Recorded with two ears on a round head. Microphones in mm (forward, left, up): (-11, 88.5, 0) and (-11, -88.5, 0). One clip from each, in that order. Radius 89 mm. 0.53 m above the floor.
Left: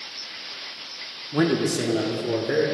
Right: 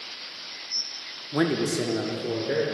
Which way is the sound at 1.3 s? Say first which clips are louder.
Left 2 dB; 20° right (ahead or behind).